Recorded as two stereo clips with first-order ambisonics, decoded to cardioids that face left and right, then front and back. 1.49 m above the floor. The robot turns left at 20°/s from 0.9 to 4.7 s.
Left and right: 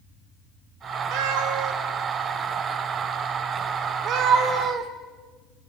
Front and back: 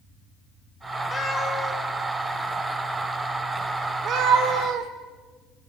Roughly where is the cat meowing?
Right.